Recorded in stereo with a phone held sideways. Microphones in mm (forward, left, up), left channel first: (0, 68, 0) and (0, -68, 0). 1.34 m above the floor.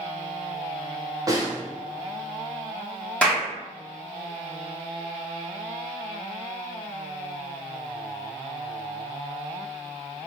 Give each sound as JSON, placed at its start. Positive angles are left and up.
{"t": 1.3, "sound": "a snare drum", "side_deg": -25, "distance_m": 0.7}
{"t": 3.2, "sound": "a clap", "side_deg": 10, "distance_m": 1.5}